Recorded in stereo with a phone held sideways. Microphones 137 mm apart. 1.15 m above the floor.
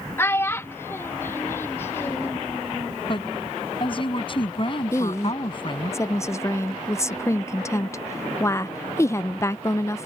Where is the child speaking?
15° left (ahead or behind).